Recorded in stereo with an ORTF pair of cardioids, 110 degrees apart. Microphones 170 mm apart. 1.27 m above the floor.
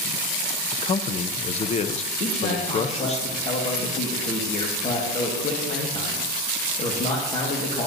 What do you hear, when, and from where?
0.7 s a man speaking: 40° left, 0.7 m
2.2 s a man speaking: 40° left, 1.7 m